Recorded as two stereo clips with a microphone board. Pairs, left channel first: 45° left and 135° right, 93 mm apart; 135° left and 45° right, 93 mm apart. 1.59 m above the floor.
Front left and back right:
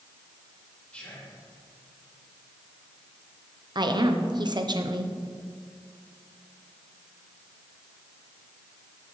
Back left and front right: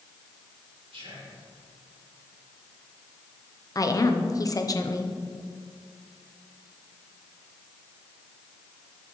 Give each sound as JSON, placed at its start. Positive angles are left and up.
{"t": 0.9, "sound": "whispering", "azimuth_deg": -30, "distance_m": 2.5}
{"t": 3.8, "sound": "a woman speaking", "azimuth_deg": -175, "distance_m": 0.8}